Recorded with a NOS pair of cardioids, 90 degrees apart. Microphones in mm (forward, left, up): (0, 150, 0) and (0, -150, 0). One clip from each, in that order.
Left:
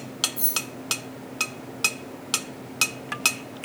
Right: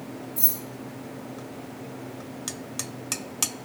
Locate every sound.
0.4 s keys jangling: 40° right, 1.4 m